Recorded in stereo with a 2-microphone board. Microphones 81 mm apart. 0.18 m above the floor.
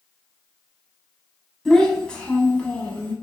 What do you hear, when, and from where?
1.6 s a child speaking: 5° left (ahead or behind), 0.8 m; by 3.1 s 20° left (ahead or behind), 1.0 m